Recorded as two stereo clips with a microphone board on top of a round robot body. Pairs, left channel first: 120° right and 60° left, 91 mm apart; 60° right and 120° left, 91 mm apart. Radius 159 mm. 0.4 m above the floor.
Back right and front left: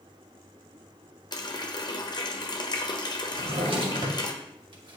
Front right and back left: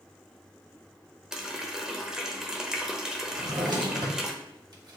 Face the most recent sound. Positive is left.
turn(degrees=80)